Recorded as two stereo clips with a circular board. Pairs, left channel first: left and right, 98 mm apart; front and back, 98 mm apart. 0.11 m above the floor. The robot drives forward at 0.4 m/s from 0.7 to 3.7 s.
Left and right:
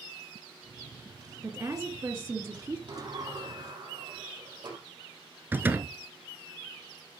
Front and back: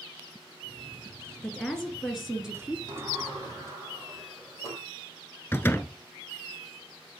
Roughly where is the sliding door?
Behind right.